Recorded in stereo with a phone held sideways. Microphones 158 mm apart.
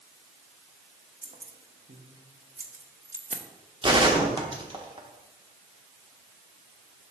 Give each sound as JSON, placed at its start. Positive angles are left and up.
{"t": 1.2, "sound": "keys jangling", "side_deg": -55, "distance_m": 0.7}
{"t": 3.8, "sound": "a gunshot", "side_deg": -30, "distance_m": 1.0}